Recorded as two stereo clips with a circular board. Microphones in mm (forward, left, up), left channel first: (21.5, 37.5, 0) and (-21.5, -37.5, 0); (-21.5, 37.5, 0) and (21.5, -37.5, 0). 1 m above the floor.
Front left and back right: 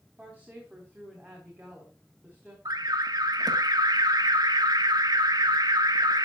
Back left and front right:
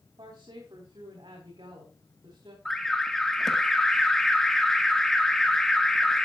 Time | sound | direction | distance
0.2 | a woman speaking | 45° right | 3.5 m
2.6 | an alarm | 155° right | 1.3 m